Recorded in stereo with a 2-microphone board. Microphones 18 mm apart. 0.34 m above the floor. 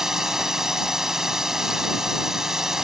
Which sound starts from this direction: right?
A drone, at 0.0 s.